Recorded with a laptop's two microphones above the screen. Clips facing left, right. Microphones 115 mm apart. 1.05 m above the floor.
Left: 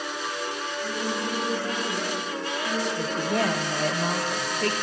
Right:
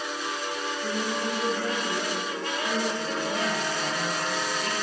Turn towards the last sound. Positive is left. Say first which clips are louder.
# left 3 dB
turn(degrees=60)  # may be behind; listen again after turning